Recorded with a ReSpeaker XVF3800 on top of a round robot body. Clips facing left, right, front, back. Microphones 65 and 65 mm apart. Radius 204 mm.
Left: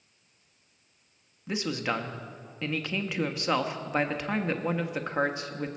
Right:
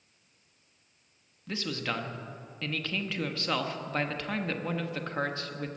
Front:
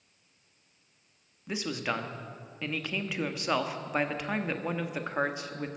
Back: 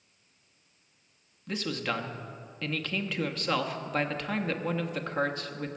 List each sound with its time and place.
1.5 s a man speaking: 55° left, 1.2 m